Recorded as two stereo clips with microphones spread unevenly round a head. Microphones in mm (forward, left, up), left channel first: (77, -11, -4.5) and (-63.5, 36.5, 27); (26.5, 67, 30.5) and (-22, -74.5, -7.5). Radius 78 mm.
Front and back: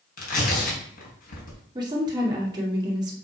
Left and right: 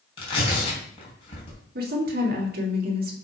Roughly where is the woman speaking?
Behind right.